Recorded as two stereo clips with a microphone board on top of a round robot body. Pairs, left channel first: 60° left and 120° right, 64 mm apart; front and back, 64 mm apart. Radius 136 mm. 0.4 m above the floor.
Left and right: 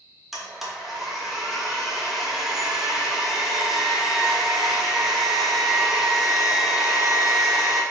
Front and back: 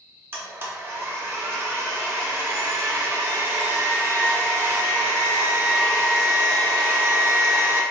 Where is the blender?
155° left, 1.0 m.